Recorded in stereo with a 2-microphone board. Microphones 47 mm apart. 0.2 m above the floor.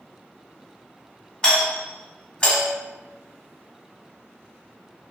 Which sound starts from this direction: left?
A doorbell, at 1.4 s.